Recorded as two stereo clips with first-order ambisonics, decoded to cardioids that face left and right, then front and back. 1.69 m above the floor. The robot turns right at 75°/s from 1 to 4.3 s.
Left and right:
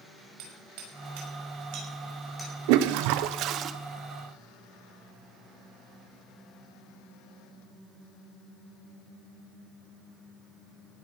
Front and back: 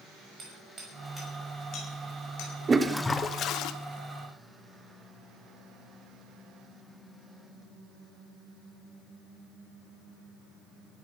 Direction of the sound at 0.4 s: 110° right.